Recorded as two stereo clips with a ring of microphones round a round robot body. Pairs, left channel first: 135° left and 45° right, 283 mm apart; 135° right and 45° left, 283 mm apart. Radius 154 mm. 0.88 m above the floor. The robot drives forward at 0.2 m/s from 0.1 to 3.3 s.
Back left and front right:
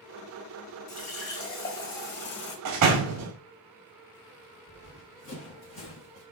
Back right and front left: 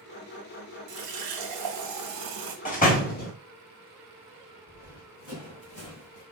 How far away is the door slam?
About 1.2 m.